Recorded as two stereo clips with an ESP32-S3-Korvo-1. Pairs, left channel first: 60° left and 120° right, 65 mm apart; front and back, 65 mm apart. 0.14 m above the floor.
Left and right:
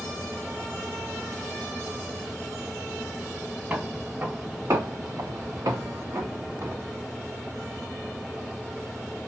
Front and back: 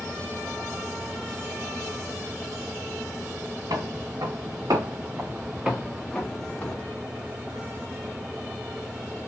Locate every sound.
3.7 s footsteps: 175° left, 1.4 m; by 6.9 s 65° right, 1.3 m